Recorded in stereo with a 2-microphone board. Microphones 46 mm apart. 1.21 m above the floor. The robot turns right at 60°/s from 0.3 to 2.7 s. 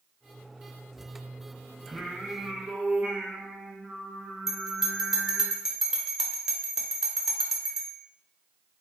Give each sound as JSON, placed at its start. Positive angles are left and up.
{"t": 1.9, "sound": "singing", "side_deg": -5, "distance_m": 0.6}
{"t": 4.5, "sound": "a bell", "side_deg": -10, "distance_m": 0.5}